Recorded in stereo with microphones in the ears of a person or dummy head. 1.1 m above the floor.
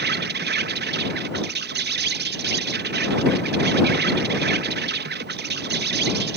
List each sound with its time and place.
0.0 s an insect: 50° right (ahead or behind)